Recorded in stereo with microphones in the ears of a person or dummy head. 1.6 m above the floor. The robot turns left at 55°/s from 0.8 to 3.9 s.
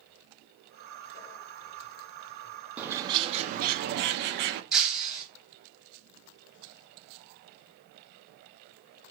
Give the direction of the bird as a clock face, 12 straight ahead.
12 o'clock.